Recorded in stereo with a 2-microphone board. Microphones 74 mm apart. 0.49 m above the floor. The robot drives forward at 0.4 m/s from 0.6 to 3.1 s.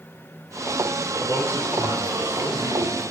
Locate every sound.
1.2 s a man speaking: 50° right (ahead or behind), 6.5 m; by 3.0 s 55° right (ahead or behind), 6 m